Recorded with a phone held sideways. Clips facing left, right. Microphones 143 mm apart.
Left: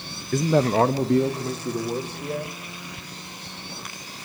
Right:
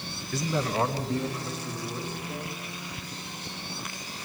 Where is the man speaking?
45° left (ahead or behind), 0.6 m; by 2.5 s 70° left (ahead or behind), 3.5 m.